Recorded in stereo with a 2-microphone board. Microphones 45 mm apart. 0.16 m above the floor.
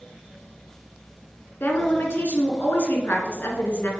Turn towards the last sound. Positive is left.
turn(degrees=50)  # may be behind; listen again after turning